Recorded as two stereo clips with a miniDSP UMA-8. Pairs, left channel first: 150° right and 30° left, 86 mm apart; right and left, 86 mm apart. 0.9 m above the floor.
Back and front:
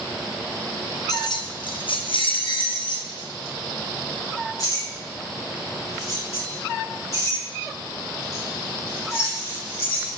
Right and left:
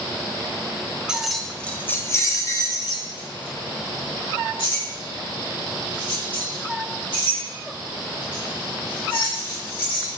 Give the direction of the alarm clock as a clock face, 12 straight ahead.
I don't hear an alarm clock.